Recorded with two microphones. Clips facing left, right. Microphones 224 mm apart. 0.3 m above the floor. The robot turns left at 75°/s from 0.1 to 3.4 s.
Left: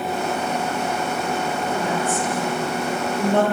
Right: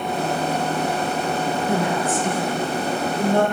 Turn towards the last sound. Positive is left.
turn(degrees=20)  # may be behind; listen again after turning